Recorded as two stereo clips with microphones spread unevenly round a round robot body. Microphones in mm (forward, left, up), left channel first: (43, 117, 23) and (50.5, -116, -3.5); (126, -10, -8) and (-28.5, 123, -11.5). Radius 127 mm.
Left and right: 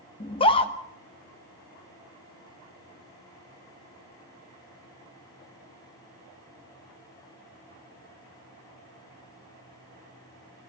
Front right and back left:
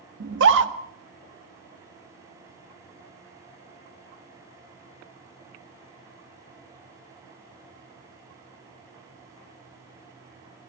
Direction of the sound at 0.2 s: 160° left.